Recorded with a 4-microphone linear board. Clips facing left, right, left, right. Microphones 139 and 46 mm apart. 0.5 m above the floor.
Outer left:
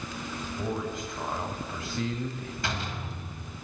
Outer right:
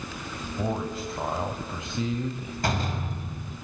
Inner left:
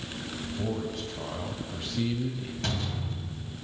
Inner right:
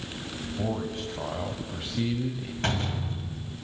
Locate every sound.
0.6 s a man speaking: 40° right (ahead or behind), 2.5 m; by 2.5 s 10° right (ahead or behind), 2 m
2.6 s a door slam: 45° right (ahead or behind), 2.5 m